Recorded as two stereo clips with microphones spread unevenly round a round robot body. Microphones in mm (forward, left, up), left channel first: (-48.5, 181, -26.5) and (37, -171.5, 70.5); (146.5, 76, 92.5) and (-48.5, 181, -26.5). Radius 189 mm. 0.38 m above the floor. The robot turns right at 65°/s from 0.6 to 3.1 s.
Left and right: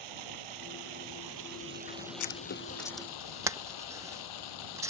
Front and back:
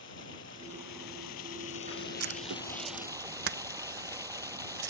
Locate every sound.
0.0 s running water: 90° right; by 4.9 s 75° left
2.2 s writing: 145° left; by 4.9 s 160° right